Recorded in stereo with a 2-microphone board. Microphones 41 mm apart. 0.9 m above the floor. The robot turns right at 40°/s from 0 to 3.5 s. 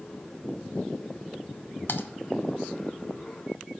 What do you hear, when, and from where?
1.9 s typing on a keyboard: 60° left (ahead or behind), 0.8 m; by 2.0 s 55° left (ahead or behind), 0.8 m